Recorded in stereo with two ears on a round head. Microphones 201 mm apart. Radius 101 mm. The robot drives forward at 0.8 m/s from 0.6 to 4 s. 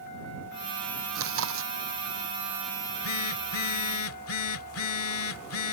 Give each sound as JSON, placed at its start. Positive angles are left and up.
{"t": 1.1, "sound": "chewing", "side_deg": -70}
{"t": 2.8, "sound": "a phone buzzing", "side_deg": 60}